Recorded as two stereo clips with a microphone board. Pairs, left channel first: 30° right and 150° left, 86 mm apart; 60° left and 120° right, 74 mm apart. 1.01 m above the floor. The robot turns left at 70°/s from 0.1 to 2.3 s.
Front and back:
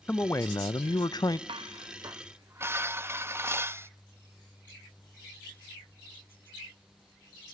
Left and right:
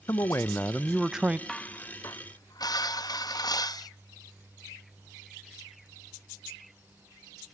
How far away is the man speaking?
About 0.6 m.